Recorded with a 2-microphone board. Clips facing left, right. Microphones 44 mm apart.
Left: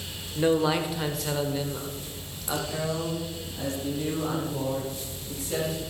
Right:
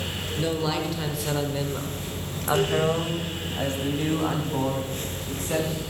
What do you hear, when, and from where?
0.3 s a man speaking: 25° left (ahead or behind), 1.4 m; by 5.8 s 50° right (ahead or behind), 4 m